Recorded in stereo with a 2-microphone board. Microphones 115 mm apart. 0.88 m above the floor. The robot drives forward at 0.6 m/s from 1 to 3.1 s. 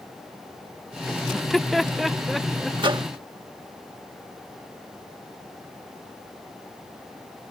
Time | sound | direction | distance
1.3 | laughter | centre (ahead or behind) | ?
2.8 | a microwave | 45° right (ahead or behind) | ?